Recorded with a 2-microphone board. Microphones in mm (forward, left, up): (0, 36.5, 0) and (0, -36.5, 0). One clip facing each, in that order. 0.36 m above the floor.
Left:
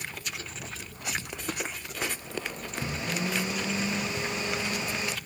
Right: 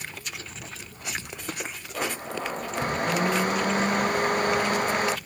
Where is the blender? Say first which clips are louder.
Right 5 dB; 50° right (ahead or behind).